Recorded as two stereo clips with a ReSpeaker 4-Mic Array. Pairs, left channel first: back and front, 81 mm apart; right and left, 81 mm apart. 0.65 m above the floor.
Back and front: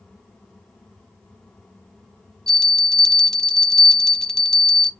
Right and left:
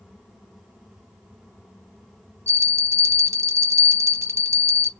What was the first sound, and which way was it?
A bell, 100° left.